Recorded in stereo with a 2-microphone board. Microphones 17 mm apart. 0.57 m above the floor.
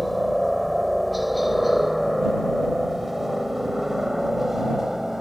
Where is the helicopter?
5° left (ahead or behind); by 5.2 s 25° right (ahead or behind).